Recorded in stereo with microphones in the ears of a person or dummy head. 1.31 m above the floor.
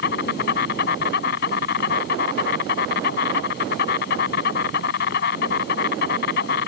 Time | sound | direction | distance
0.0 | an insect | 60° left (ahead or behind) | ?